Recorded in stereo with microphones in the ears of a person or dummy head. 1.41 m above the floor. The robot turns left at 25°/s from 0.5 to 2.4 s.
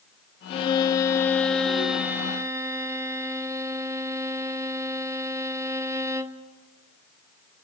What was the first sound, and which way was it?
A violin, 30° left.